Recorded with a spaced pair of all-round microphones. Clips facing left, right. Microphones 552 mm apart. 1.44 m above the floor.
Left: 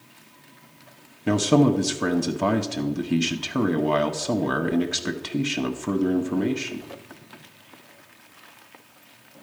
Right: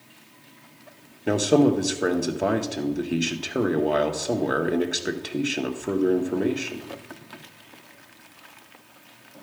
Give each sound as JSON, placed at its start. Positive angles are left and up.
{"t": 1.3, "sound": "a man speaking", "side_deg": 25, "distance_m": 0.6}